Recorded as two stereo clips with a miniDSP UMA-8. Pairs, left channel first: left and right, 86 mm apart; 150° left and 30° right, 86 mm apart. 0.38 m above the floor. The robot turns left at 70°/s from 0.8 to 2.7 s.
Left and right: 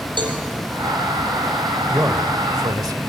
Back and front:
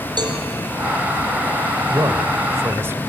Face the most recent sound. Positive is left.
turn(degrees=-80)